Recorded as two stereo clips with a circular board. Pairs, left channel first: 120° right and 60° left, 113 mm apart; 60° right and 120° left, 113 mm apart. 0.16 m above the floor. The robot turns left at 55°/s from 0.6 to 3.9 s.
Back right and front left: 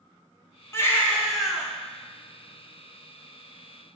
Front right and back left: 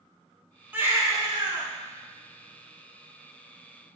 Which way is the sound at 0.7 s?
175° right.